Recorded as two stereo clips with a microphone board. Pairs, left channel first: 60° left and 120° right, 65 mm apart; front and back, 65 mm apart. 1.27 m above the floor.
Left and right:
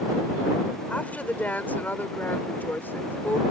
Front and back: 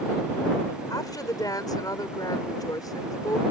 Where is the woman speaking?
5° right; by 3.4 s 5° left.